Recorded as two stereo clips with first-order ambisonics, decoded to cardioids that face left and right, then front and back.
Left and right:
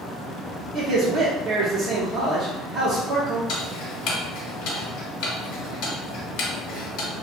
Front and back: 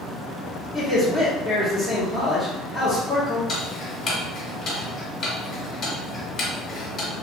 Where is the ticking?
60° left, 0.8 m.